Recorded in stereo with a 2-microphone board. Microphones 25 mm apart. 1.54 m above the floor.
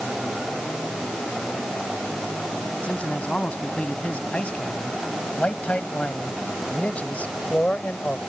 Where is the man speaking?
60° left (ahead or behind); by 8.2 s 85° left.